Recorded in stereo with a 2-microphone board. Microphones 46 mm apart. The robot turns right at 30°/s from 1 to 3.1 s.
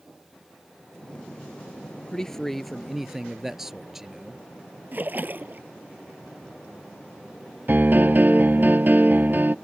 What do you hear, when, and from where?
2.1 s a man speaking: 10° left (ahead or behind); by 4.4 s 10° right (ahead or behind)
4.9 s a splash: 45° right (ahead or behind)
7.7 s a piano: 45° right (ahead or behind)